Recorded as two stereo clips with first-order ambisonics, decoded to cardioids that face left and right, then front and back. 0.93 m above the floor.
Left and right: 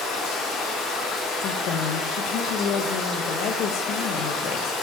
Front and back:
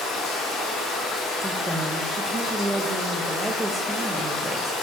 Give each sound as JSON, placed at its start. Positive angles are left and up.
{"t": 0.0, "sound": "running water", "azimuth_deg": 40, "distance_m": 2.5}
{"t": 1.4, "sound": "a woman speaking", "azimuth_deg": 100, "distance_m": 0.6}